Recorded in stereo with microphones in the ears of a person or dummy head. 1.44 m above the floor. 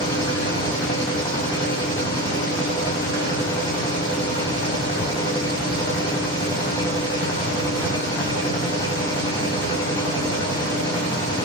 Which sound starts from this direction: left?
A machine running, at 0.0 s.